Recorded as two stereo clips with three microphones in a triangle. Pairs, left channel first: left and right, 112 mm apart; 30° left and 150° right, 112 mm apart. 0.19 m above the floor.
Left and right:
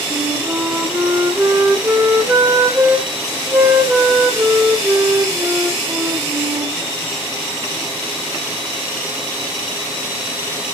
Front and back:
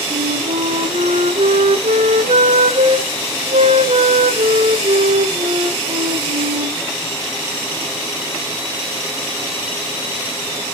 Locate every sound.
0.1 s a flute: 160° right, 2.5 m